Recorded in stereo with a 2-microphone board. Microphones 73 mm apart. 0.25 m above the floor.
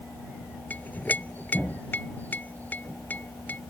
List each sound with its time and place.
0.7 s a clink: 25° left (ahead or behind)